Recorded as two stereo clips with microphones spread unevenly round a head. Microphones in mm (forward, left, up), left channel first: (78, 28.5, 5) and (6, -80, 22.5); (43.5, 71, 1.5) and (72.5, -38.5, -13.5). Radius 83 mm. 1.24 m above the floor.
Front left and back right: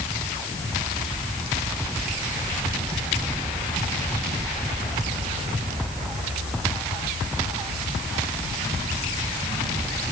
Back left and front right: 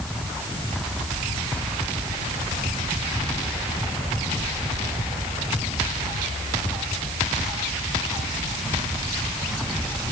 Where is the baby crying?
No baby crying in this recording.